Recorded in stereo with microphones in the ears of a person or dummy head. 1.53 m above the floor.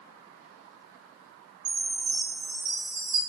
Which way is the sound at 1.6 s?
30° right (ahead or behind).